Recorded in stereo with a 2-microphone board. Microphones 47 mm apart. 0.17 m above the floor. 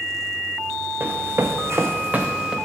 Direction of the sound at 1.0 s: 50° right (ahead or behind).